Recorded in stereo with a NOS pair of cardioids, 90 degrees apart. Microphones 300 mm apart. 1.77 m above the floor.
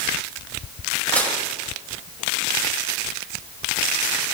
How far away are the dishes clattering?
About 5 m.